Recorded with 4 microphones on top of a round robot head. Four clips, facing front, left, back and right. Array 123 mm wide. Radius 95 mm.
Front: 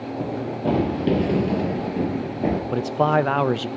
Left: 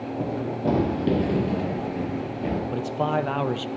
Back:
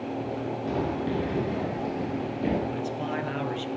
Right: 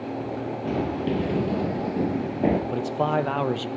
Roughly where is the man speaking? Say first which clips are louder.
Right 1 dB, front 10 dB; ahead.